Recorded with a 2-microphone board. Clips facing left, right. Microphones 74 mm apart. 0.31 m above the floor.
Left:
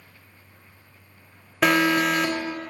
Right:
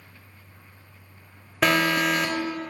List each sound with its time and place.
1.6 s an alarm: 5° left (ahead or behind), 0.9 m